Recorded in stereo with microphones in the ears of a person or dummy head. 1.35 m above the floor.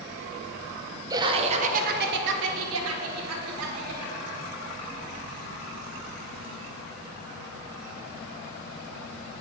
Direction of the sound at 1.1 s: 20° right (ahead or behind).